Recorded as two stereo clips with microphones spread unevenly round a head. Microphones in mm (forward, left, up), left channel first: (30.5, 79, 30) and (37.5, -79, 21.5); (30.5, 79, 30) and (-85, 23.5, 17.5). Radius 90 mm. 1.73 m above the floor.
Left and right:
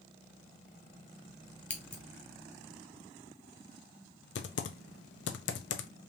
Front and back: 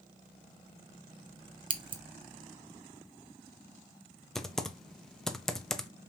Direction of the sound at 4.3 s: 110° left.